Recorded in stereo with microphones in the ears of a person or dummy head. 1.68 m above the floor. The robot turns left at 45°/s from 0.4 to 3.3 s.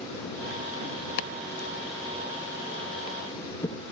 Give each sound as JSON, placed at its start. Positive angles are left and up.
{"t": 1.2, "sound": "chopping", "side_deg": 60}